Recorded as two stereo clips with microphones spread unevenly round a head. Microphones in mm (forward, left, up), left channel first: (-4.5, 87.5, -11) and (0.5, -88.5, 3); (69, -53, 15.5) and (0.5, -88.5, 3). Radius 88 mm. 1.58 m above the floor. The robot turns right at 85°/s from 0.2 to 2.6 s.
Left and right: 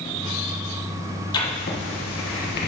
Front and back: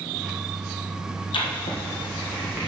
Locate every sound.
1.3 s writing: 25° left, 1.5 m; by 2.7 s 130° left, 1.5 m